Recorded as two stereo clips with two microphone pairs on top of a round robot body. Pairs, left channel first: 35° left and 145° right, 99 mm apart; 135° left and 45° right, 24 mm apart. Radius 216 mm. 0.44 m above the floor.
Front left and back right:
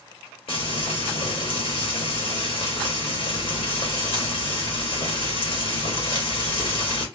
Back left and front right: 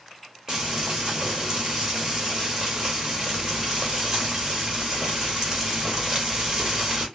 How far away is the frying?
About 2.5 m.